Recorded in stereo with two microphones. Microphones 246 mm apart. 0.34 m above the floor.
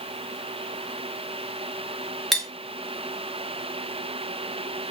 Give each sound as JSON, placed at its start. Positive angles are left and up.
{"t": 2.3, "sound": "cutlery clinking", "side_deg": 0, "distance_m": 0.7}